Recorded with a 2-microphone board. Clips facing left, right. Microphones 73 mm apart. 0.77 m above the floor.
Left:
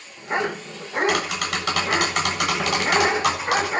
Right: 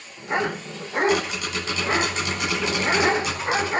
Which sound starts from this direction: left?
Tapping, at 1.1 s.